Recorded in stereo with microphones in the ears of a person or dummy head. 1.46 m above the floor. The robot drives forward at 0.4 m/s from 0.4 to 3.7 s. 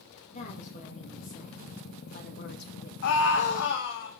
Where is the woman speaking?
40° left (ahead or behind), 2.5 m; by 2.9 s 60° left (ahead or behind), 1.6 m.